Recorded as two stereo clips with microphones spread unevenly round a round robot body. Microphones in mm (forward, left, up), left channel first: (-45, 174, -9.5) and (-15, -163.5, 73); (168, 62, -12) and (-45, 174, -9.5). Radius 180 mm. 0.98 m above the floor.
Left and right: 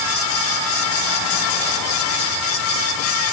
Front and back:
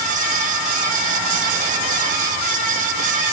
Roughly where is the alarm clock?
No alarm clock in this recording.